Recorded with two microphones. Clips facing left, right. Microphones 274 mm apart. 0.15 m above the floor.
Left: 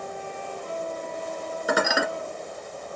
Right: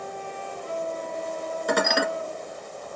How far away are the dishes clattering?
About 1.4 m.